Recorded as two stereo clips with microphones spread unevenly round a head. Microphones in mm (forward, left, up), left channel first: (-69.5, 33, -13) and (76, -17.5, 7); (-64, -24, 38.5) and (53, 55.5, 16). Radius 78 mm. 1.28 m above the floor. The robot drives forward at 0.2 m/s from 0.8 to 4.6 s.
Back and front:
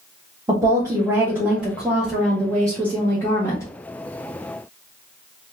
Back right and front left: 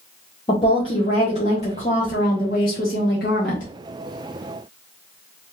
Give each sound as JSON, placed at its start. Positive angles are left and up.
{"t": 0.5, "sound": "a woman speaking", "azimuth_deg": -90, "distance_m": 0.8}